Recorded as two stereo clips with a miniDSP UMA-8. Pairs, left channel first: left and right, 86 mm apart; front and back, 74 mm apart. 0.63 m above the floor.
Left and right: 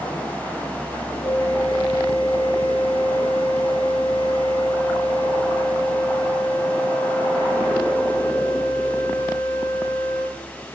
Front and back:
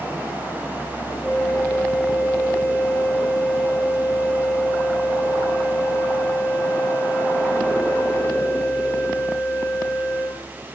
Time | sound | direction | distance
1.2 | a flute | 65° left | 4.5 m